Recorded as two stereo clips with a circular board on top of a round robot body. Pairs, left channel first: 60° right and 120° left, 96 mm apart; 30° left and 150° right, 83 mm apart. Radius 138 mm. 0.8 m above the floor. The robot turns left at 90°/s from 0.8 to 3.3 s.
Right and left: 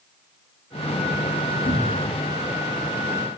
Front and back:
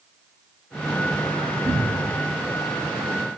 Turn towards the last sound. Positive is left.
turn(degrees=130)